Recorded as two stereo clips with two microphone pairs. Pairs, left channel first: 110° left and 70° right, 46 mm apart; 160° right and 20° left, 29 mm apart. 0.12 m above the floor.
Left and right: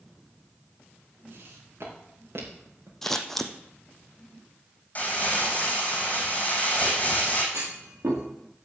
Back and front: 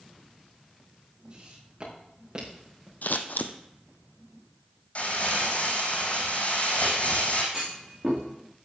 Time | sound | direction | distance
1.3 | footsteps | 35° right | 5.5 m
3.0 | scissors | 165° right | 1.0 m
5.0 | crumpling | 165° left | 3.5 m
7.5 | a clunk | 55° right | 5 m